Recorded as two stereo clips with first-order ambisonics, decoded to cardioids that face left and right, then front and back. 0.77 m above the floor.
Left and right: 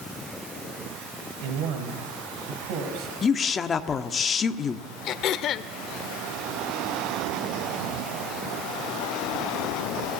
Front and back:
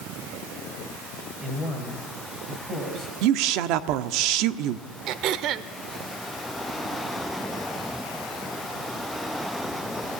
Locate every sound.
1.4 s a man speaking: 105° right, 4.5 m; by 3.1 s 120° right, 6 m
3.2 s a woman speaking: 160° left, 1.2 m
5.1 s throat clearing: 140° left, 0.8 m